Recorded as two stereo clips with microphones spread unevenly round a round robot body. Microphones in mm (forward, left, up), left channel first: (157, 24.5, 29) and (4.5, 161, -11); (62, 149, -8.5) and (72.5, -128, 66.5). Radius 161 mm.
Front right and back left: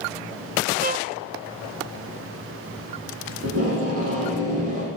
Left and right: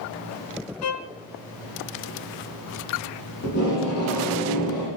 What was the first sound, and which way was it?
A violin, 100° left.